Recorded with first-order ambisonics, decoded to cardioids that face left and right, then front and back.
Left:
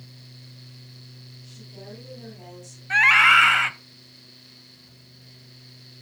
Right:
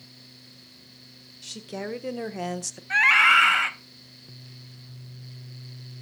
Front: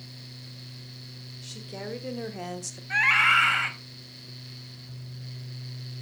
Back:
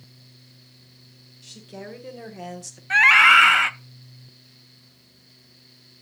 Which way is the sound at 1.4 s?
80° right.